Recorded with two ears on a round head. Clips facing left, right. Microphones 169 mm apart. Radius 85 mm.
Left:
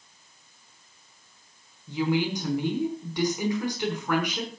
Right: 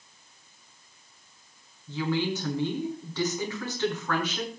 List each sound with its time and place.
1.9 s a woman speaking: 10° left (ahead or behind), 5.5 m